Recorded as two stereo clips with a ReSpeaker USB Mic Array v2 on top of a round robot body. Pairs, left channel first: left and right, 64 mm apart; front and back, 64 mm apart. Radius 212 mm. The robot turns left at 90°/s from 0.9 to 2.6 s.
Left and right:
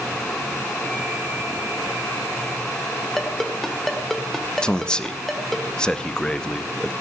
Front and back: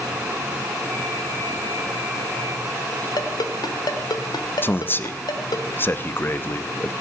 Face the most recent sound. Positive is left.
turn(degrees=20)